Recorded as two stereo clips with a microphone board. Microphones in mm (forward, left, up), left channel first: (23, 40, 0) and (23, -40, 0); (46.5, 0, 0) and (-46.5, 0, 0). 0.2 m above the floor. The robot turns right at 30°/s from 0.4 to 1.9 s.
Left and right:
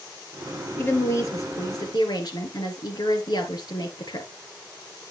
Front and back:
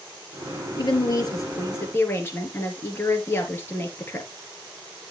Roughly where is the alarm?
No alarm in this recording.